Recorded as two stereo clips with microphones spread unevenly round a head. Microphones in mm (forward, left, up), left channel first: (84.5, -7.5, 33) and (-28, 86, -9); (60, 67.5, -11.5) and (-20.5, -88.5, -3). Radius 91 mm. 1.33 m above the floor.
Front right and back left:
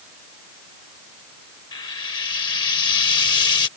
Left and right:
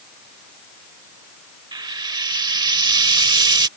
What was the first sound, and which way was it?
Frying, 65° right.